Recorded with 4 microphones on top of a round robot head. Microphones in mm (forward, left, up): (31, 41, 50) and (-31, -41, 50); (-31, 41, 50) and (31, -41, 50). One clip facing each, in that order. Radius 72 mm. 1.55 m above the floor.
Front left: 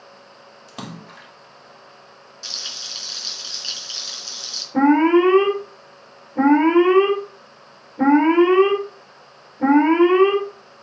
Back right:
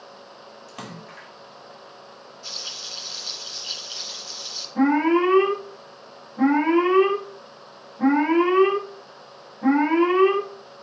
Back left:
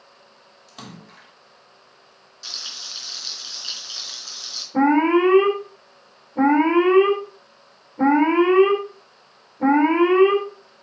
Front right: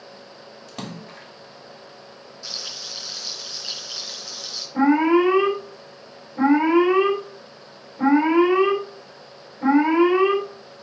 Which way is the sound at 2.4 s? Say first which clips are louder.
Even, even; 45° left.